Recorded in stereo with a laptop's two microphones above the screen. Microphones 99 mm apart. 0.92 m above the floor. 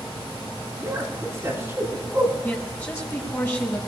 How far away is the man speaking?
About 7.5 m.